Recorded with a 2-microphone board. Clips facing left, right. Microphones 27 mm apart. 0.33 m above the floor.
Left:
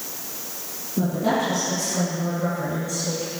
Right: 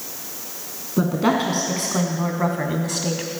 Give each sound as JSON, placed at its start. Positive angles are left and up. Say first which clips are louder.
{"t": 1.0, "sound": "a woman speaking", "louder": "right 3 dB", "side_deg": -45, "distance_m": 3.0}